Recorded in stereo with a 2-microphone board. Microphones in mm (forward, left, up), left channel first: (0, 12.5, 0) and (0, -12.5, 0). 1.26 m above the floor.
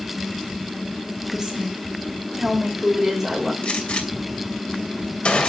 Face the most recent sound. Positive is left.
turn(degrees=50)  # may be behind; listen again after turning